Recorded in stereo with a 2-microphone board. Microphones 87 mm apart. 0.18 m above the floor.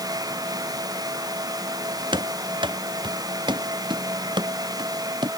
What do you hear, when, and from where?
2.1 s running footsteps: 65° right (ahead or behind); by 5.3 s 55° right (ahead or behind)